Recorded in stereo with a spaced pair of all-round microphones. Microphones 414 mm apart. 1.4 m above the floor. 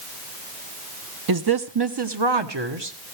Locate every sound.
1.3 s a woman speaking: 55° right (ahead or behind), 0.9 m; by 3.0 s 80° right, 1.6 m